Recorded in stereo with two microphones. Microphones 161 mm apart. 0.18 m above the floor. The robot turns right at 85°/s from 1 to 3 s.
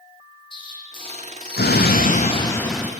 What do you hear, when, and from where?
0.5 s an explosion: 30° left, 2.5 m; by 2.9 s 165° right, 2.5 m